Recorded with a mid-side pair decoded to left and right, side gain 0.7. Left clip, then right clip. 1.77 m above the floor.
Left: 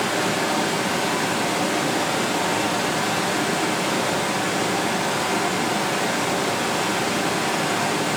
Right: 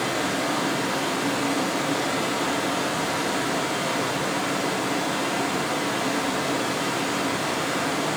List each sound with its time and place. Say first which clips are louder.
0.0 s running water: left 3 dB; 70° left, 1.7 m